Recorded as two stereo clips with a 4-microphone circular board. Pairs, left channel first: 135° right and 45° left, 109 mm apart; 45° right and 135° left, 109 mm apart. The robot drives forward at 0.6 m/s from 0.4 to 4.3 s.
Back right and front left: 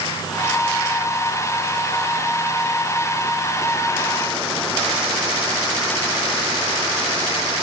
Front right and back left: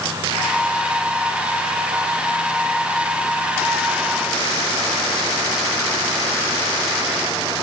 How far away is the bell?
No bell in this recording.